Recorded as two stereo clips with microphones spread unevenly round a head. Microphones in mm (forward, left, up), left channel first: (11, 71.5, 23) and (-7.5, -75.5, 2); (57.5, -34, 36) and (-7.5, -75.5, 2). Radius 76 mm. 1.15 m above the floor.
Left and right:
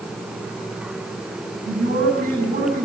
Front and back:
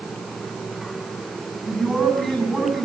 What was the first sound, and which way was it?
A man speaking, 55° right.